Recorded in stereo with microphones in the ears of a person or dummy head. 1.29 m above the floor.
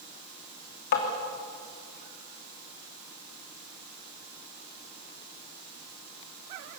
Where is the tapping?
55° left (ahead or behind), 3 m.